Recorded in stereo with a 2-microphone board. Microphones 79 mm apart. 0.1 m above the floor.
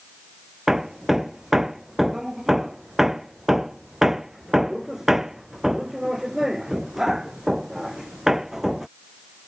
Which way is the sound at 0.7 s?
5° right (ahead or behind).